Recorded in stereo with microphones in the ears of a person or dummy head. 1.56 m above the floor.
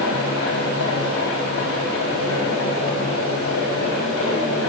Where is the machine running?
65° left (ahead or behind), 3.5 m.